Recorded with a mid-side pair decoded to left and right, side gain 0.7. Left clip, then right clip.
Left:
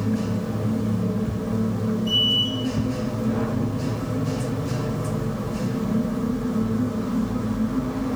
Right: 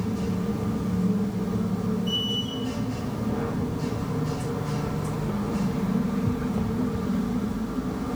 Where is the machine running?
20° left, 1.0 m.